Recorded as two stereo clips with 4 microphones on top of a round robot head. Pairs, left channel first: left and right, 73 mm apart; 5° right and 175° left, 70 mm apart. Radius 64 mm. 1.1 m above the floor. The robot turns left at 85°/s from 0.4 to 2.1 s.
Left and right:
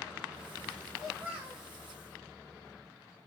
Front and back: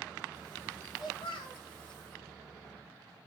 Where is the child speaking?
10° left, 1.0 m; by 1.6 s 50° right, 1.0 m.